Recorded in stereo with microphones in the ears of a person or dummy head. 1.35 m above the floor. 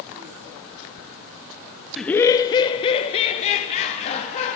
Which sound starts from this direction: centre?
Laughter, at 2.0 s.